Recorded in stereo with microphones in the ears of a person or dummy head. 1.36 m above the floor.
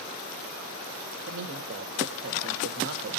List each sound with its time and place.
1.3 s a man speaking: 55° right (ahead or behind), 1.7 m